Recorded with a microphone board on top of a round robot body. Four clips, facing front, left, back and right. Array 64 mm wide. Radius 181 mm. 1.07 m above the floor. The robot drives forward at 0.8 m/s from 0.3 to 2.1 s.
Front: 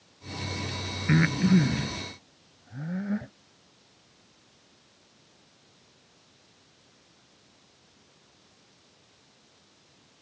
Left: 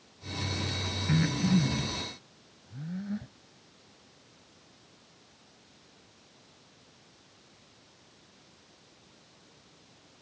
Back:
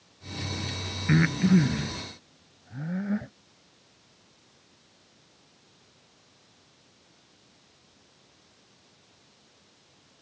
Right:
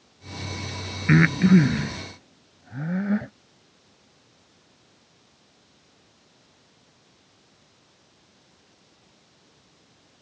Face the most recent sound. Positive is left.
turn(degrees=-95)